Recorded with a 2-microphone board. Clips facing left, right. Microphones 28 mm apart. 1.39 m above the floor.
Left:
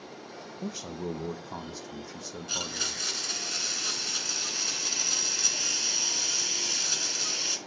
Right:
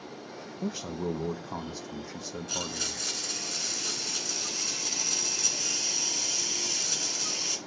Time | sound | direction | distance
0.6 | a man speaking | 10° right (ahead or behind) | 0.8 m
2.5 | a blender | 15° left (ahead or behind) | 2.5 m